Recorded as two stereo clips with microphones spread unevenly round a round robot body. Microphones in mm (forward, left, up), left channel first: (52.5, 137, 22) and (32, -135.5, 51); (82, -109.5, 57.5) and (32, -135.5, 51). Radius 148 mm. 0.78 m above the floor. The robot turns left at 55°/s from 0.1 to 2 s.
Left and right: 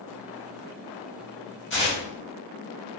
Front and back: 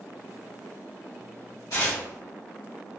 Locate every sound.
1.7 s tearing paper: 40° left, 2.0 m; by 2.0 s 25° left, 2.0 m